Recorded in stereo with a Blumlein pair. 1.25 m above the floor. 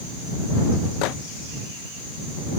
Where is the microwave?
40° left.